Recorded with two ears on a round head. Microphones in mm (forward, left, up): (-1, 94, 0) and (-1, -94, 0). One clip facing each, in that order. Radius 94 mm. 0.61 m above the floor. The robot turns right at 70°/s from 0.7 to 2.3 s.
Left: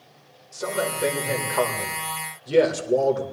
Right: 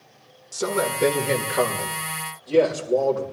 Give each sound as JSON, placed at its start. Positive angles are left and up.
{"t": 0.5, "sound": "a man speaking", "azimuth_deg": -90, "distance_m": 2.0}